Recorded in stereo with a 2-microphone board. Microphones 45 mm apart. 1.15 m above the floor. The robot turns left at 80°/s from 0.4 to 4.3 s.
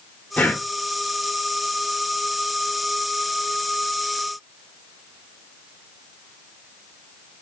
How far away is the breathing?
About 1.1 m.